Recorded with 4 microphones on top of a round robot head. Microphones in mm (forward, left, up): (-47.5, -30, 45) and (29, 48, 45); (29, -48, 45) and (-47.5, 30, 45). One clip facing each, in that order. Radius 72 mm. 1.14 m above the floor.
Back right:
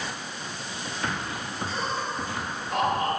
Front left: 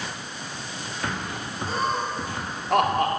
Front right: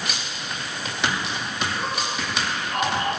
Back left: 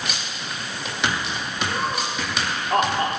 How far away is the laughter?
About 3.5 m.